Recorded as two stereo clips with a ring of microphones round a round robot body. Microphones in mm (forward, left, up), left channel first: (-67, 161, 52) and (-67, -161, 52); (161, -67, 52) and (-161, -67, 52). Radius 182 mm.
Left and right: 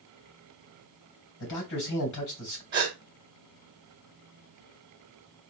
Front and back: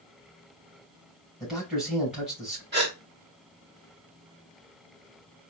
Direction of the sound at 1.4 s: 90° left.